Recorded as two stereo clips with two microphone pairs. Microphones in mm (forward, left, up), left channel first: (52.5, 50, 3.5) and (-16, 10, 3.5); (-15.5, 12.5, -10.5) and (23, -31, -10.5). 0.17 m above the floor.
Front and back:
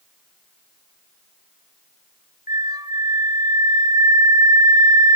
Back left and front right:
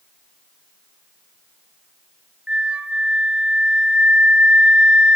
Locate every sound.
2.5 s a flute: 115° right, 1.2 m